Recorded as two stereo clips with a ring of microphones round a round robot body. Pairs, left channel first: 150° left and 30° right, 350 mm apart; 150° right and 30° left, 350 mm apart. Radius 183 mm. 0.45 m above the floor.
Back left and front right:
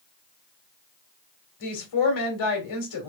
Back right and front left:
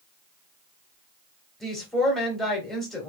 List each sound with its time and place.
1.6 s a woman speaking: 120° left, 2.5 m